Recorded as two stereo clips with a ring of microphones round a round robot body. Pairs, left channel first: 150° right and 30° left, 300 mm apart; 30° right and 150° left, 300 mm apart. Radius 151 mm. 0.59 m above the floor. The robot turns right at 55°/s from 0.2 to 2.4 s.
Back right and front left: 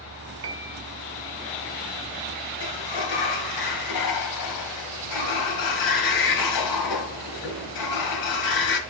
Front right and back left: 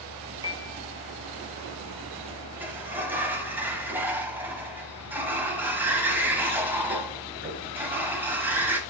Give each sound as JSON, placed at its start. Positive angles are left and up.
{"t": 0.4, "sound": "a piano", "azimuth_deg": 75, "distance_m": 1.1}
{"t": 2.6, "sound": "a sliding door", "azimuth_deg": -125, "distance_m": 1.4}